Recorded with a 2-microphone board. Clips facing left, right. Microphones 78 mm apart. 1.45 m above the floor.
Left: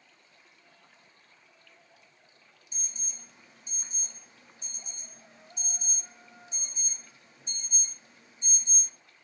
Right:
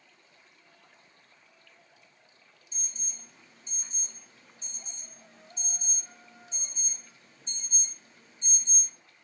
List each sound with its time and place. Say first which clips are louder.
2.7 s an alarm: even; 15° left (ahead or behind), 1.5 m